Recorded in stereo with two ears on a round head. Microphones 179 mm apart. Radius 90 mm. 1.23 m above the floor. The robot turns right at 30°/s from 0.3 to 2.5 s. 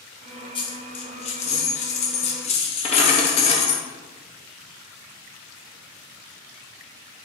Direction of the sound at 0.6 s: 50° left.